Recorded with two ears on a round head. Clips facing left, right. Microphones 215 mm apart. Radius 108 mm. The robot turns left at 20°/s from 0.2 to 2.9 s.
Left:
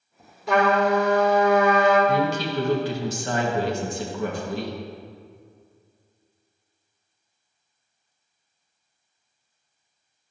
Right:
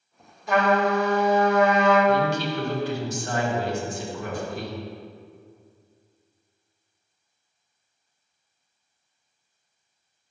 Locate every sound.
0.5 s a trumpet: 95° left, 2.0 m; by 2.0 s 65° left, 2.0 m
2.1 s a woman speaking: 70° left (ahead or behind), 1.8 m; by 4.8 s 55° left (ahead or behind), 1.8 m